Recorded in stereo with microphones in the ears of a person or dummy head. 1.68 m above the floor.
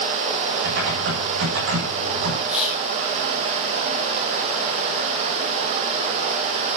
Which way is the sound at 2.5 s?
5° right (ahead or behind).